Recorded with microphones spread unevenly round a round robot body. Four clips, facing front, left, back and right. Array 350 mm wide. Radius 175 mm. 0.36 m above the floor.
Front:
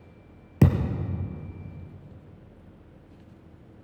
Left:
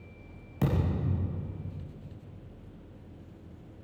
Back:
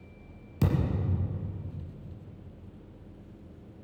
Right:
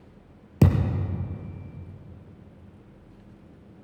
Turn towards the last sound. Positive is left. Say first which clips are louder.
# right 6 dB, front 5 dB
turn(degrees=-35)